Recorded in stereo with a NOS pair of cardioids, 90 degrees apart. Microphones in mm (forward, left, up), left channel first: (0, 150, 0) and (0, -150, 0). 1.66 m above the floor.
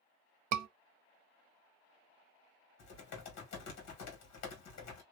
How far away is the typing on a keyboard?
About 1.6 m.